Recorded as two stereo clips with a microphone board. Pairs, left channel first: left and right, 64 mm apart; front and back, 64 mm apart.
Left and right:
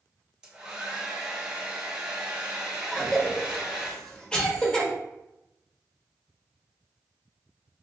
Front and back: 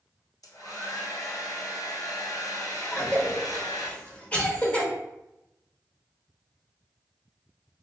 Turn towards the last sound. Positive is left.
turn(degrees=35)